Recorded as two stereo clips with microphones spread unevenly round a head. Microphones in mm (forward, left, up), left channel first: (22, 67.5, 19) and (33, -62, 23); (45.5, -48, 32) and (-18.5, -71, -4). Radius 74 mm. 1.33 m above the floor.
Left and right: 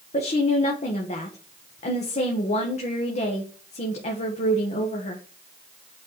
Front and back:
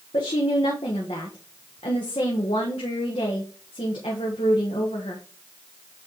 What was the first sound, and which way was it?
A woman speaking, 65° left.